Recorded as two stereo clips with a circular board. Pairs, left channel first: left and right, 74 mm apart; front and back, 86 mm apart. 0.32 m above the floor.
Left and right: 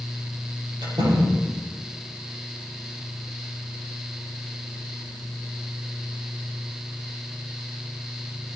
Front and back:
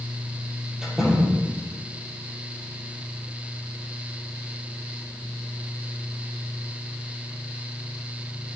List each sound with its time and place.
0.8 s a door slam: 95° right, 7 m